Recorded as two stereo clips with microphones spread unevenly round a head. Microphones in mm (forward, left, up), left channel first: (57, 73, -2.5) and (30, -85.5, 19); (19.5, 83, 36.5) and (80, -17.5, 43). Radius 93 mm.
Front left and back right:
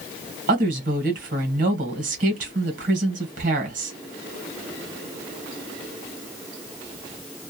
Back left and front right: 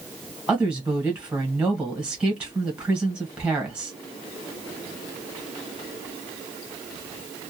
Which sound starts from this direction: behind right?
A woman speaking, at 0.5 s.